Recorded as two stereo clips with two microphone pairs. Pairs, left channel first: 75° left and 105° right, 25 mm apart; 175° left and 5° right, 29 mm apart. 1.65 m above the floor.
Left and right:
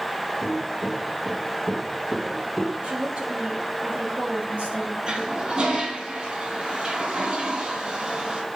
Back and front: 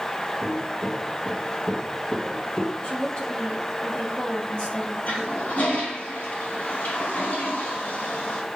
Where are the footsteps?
65° left, 1.9 m; by 2.7 s 150° left, 1.7 m.